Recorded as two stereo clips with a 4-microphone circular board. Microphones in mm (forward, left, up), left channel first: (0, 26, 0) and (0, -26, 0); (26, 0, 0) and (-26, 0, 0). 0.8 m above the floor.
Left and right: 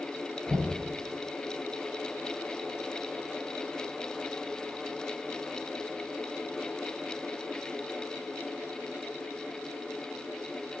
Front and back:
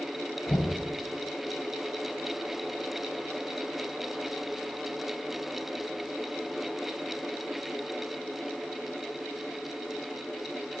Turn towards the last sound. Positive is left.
turn(degrees=-25)